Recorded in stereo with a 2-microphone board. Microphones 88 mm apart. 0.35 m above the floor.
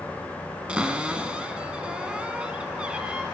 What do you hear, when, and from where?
0.7 s a cupboard door: 15° right (ahead or behind), 1.2 m